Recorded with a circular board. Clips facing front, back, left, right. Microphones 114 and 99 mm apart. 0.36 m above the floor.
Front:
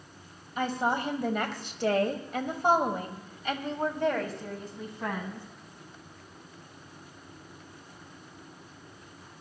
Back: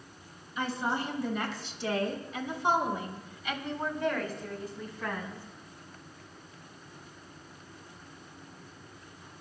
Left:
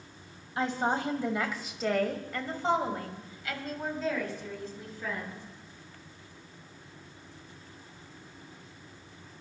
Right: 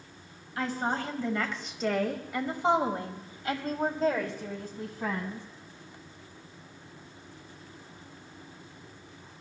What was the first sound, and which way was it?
A woman speaking, 30° left.